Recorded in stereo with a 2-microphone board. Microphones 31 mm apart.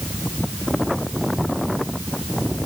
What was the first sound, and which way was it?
Only background noise.